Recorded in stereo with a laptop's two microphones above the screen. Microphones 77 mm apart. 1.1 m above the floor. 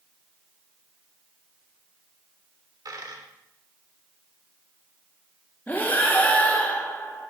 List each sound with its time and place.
2.9 s a dropped coin: 50° right (ahead or behind), 1.1 m
5.7 s breathing: 20° left (ahead or behind), 1.0 m